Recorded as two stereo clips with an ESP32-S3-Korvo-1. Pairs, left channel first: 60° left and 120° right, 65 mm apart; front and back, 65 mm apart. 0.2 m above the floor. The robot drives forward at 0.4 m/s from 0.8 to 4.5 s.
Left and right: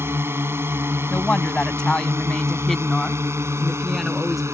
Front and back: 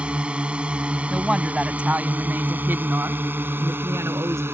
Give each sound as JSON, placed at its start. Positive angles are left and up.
{"t": 0.0, "sound": "a drone", "azimuth_deg": -120}
{"t": 1.1, "sound": "a woman speaking", "azimuth_deg": 105}